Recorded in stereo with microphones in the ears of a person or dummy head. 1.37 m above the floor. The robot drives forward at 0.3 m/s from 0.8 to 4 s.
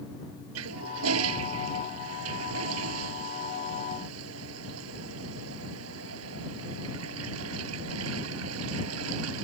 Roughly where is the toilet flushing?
Right.